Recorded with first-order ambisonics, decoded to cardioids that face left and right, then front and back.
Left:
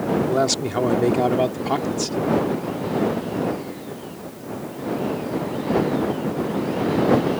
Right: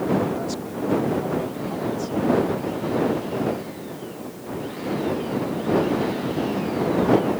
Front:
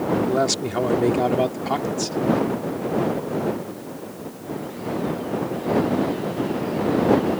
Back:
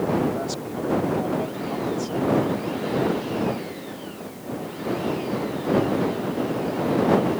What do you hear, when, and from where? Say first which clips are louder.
0.3 s a man speaking: left 8 dB, front 7 dB; 50° left